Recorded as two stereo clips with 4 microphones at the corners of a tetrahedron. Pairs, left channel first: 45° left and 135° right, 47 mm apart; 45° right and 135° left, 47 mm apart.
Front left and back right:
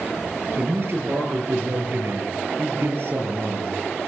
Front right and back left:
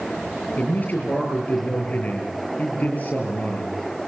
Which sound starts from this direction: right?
A man speaking, at 0.6 s.